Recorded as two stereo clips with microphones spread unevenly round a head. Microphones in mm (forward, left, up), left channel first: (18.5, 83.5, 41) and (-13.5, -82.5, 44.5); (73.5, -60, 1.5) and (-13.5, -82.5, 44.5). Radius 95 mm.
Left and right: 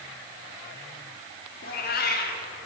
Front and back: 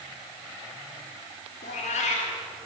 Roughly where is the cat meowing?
Ahead left.